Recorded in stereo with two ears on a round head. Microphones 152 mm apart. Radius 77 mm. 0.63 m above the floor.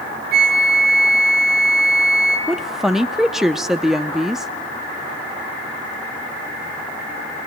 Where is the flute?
65° right (ahead or behind), 3.5 m.